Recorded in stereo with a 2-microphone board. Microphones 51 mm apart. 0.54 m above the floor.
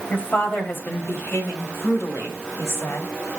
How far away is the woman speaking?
About 3 m.